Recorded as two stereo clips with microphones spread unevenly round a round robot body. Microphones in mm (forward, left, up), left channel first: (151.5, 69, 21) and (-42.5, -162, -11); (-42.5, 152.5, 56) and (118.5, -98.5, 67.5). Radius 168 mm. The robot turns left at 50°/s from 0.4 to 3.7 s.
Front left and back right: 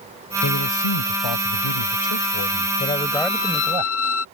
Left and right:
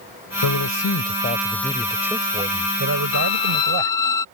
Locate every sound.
0.4 s a man speaking: 105° left; by 4.1 s 55° right
3.1 s a violin: 130° left; by 4.2 s 105° left